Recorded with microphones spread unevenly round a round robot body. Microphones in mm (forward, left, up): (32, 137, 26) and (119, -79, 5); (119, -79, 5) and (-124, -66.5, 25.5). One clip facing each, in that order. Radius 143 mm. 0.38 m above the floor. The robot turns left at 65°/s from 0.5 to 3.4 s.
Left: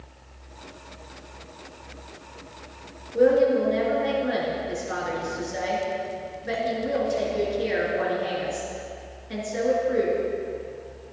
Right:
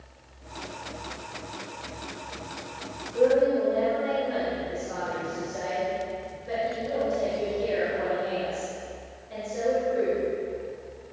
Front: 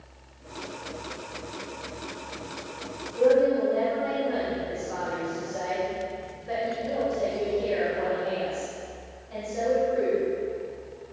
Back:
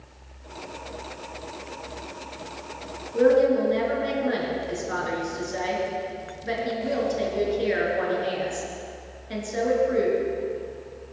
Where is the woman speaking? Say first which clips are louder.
Left 2 dB, back 2 dB; 170° left, 4.5 m; by 10.2 s 150° left, 4.5 m.